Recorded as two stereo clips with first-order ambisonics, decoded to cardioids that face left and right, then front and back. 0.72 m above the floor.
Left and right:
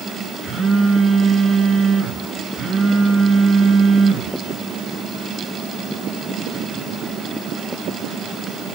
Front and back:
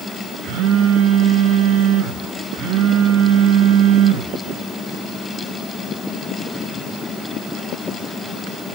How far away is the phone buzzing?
About 7 m.